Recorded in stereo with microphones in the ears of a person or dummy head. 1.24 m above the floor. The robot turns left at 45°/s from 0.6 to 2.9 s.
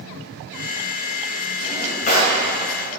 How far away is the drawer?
About 2.5 m.